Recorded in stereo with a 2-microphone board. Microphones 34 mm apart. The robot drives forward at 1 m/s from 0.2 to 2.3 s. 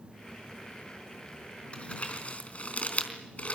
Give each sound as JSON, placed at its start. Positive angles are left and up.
{"t": 1.7, "sound": "crumpling", "side_deg": 35, "distance_m": 4.0}